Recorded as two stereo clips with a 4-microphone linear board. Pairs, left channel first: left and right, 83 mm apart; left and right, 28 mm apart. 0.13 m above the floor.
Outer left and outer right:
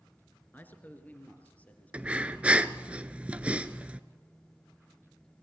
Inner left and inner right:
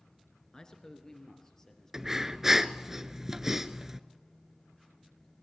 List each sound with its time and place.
0.5 s a man speaking: 25° left (ahead or behind), 1.9 m; by 2.9 s 15° left (ahead or behind), 5 m
1.9 s breathing: 15° right (ahead or behind), 0.7 m